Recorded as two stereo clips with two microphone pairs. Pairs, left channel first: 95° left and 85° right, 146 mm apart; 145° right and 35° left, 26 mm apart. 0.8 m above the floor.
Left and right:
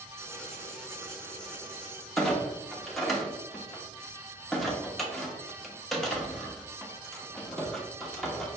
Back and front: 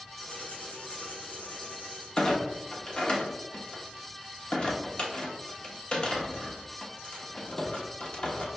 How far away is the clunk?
About 1.0 m.